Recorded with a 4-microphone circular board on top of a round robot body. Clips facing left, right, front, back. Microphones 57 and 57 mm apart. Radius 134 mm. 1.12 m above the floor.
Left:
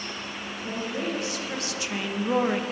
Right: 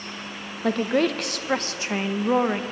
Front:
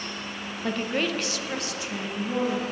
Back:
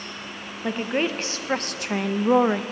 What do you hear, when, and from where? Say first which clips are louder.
0.6 s a woman speaking: right 10 dB, back 2 dB; 100° right, 1.0 m; by 2.6 s 170° right, 1.0 m